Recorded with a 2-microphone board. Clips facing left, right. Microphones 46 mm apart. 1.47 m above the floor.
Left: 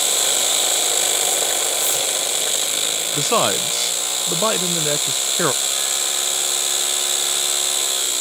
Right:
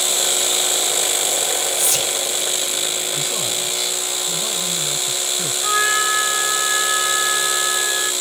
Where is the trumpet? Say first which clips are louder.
Right 8 dB; 75° right (ahead or behind).